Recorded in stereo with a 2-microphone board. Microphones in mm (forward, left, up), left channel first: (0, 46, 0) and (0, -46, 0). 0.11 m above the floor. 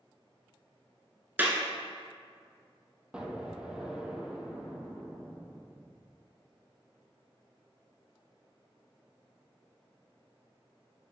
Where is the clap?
20° right (ahead or behind), 1.4 m.